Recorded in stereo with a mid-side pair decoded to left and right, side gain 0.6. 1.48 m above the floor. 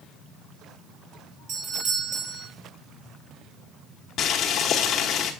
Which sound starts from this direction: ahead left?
Boiling, at 4.2 s.